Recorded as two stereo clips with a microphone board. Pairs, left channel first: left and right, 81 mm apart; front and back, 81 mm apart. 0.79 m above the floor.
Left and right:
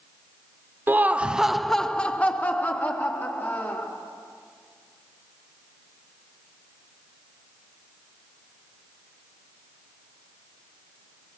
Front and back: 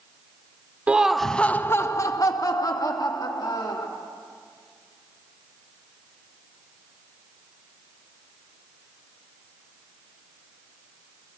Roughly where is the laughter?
Behind right.